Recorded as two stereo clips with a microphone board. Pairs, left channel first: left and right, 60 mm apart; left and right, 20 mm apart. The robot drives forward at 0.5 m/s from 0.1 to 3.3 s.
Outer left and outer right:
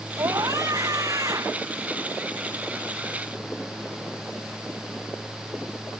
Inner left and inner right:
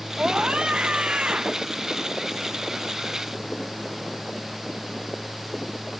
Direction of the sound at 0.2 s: 75° right (ahead or behind).